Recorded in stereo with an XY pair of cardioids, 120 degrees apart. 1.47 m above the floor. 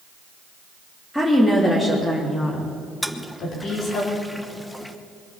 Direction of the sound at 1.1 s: 10° left.